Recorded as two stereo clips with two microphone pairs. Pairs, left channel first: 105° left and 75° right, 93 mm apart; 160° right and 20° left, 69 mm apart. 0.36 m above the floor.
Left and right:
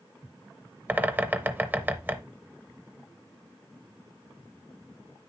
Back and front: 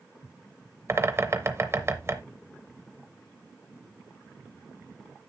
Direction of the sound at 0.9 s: 15° right.